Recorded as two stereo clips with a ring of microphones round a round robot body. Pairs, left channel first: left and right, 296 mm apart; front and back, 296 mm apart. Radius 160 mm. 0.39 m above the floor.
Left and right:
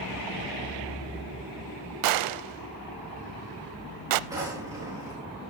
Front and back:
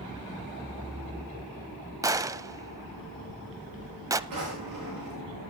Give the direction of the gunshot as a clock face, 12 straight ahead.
3 o'clock.